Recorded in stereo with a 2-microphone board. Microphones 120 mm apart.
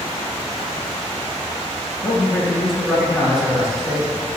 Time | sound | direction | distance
2.0 | a man speaking | 5° left (ahead or behind) | 3 m